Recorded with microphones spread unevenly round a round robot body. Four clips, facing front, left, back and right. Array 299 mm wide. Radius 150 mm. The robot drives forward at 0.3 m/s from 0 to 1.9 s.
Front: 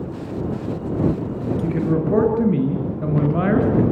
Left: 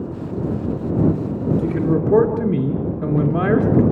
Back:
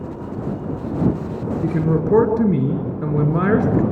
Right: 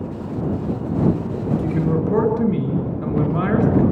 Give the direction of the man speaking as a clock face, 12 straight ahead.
7 o'clock.